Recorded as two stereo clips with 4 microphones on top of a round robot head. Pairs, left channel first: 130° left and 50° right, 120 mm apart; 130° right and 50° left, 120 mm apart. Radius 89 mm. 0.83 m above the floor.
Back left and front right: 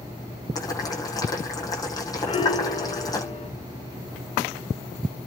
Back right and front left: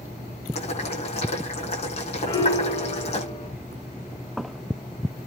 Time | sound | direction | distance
0.6 | boiling | 165° right | 10 m
2.3 | a piano | straight behind | 2.5 m